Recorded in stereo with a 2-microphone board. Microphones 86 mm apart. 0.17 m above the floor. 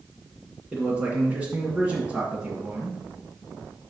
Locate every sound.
0.7 s a man speaking: 15° right (ahead or behind), 1.7 m